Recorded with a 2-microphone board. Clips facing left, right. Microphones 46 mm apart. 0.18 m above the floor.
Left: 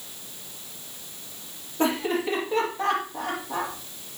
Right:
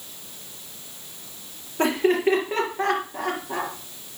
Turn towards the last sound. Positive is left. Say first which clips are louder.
# right 4 dB
turn(degrees=-50)  # may be behind; listen again after turning